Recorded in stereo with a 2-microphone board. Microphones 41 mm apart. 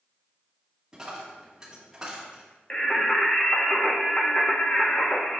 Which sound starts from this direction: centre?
A dropped coin, at 0.9 s.